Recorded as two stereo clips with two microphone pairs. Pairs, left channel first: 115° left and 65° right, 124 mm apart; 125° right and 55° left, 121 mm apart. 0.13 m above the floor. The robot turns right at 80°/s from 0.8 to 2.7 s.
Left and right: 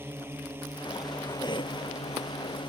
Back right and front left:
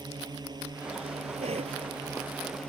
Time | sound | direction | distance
0.0 | a drone | 5° left | ?
1.4 | a cough | 65° left | ?